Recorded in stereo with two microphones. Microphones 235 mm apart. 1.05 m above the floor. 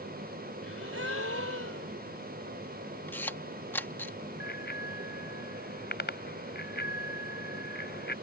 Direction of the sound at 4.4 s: 45° left (ahead or behind).